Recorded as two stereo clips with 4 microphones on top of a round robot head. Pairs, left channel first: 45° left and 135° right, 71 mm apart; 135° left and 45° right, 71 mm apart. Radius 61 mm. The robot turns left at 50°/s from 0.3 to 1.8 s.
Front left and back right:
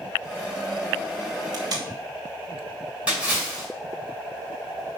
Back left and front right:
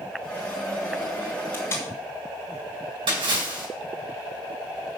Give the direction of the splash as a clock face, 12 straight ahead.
2 o'clock.